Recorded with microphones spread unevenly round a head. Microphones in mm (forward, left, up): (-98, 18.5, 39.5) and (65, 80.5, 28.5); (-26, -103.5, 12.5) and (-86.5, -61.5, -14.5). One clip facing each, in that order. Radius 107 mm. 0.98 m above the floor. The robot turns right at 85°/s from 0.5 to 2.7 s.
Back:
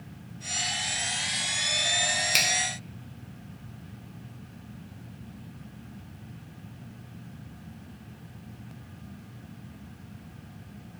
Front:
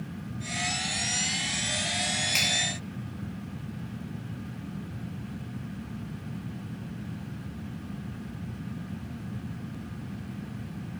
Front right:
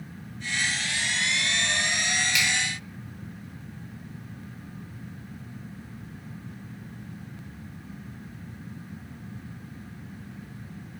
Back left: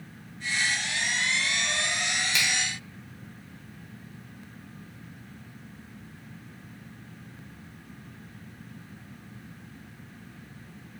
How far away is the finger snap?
About 0.6 m.